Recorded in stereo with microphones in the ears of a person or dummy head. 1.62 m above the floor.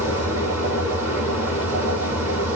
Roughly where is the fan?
Centre.